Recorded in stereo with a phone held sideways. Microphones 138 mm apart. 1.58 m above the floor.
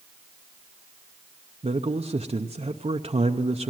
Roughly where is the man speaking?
Right.